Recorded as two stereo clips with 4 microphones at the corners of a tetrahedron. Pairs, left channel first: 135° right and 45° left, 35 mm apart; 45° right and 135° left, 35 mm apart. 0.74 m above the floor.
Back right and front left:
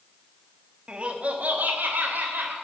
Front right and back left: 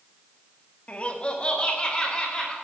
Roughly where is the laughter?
Ahead.